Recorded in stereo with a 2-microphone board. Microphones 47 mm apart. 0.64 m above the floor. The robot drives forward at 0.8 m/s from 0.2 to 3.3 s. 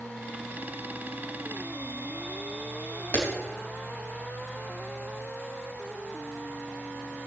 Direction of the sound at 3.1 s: 45° left (ahead or behind).